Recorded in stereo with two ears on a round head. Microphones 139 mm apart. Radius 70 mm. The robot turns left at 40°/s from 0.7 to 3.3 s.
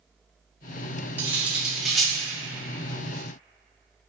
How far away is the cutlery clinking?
About 0.5 m.